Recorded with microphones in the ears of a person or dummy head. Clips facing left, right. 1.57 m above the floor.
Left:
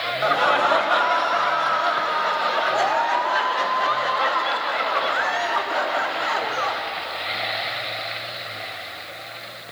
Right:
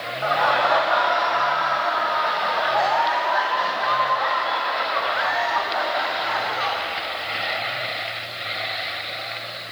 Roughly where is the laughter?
Left.